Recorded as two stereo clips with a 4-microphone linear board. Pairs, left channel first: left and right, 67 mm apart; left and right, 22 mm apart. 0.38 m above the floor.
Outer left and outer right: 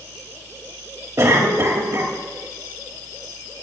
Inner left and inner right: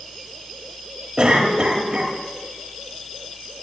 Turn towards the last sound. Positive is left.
turn(degrees=-50)  # may be behind; listen again after turning